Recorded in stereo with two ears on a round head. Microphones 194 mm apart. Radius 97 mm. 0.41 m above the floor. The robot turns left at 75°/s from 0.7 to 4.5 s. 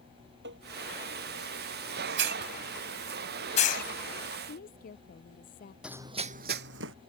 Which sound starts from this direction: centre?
Running footsteps, at 5.8 s.